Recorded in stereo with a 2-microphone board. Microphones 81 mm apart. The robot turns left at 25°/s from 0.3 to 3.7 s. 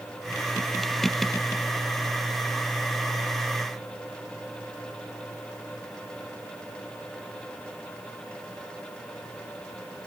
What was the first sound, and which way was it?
Only background noise.